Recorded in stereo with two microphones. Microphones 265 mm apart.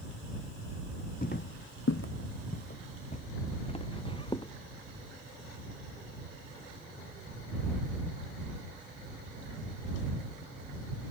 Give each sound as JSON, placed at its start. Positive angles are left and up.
{"t": 1.2, "sound": "footsteps", "side_deg": 35}